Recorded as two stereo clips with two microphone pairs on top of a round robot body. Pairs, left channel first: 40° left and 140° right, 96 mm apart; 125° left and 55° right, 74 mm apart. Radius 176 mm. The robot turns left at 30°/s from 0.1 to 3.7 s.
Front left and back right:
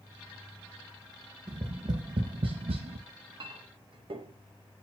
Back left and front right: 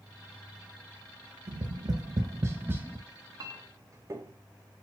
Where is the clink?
85° right, 0.9 m; by 4.4 s 105° right, 0.9 m.